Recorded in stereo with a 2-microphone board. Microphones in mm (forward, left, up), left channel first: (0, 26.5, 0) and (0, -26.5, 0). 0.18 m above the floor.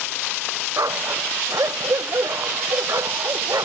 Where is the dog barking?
85° right; by 3.6 s 90° right.